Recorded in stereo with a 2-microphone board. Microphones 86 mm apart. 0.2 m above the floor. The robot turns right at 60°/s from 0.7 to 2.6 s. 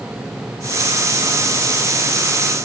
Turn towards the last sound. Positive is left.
No sound to turn to.